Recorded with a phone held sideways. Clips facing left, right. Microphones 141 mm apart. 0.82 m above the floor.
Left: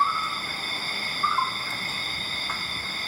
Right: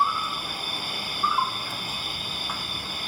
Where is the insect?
10° right (ahead or behind), 1.6 m.